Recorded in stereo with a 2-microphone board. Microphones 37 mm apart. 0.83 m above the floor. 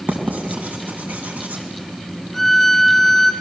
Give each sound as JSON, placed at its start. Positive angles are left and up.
{"t": 0.1, "sound": "writing", "side_deg": -50, "distance_m": 3.5}
{"t": 2.3, "sound": "a violin", "side_deg": 5, "distance_m": 1.7}